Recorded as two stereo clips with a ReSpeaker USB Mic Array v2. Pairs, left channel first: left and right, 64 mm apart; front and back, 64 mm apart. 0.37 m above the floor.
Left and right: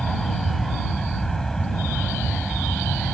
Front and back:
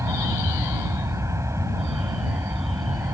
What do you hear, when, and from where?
0.0 s an aircraft: 170° left